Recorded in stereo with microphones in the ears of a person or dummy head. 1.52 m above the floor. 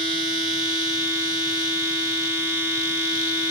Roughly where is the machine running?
Left.